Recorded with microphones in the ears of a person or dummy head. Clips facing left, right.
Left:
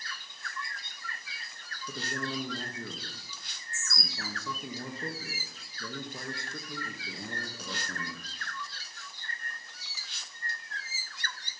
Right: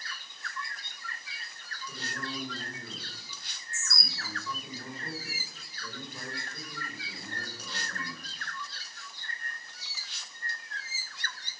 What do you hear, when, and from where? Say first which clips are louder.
1.9 s a man speaking: left 4 dB; 65° left (ahead or behind), 1.3 m